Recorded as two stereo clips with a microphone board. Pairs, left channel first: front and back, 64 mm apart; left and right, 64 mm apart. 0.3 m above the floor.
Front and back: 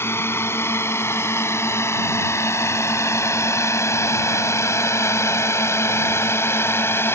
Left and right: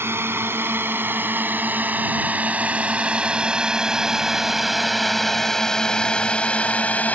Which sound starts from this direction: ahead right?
A drone, at 0.0 s.